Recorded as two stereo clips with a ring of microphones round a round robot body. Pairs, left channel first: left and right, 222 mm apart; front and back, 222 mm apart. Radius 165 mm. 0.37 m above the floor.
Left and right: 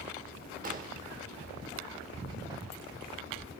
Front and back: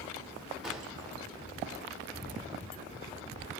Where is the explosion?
90° right, 0.9 m.